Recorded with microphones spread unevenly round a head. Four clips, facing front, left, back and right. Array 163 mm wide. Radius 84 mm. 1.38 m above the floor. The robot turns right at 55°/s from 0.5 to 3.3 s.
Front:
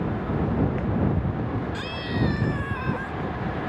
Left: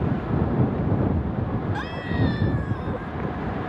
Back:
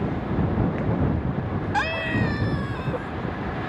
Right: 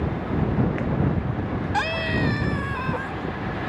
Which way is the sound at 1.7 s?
140° right.